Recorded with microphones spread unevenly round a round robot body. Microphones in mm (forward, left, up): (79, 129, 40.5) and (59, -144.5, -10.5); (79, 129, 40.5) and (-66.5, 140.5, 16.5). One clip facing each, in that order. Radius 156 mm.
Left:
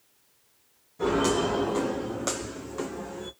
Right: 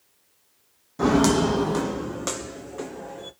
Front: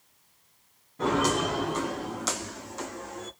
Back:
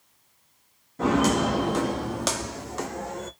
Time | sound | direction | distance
1.0 | footsteps | 120° right | 0.9 m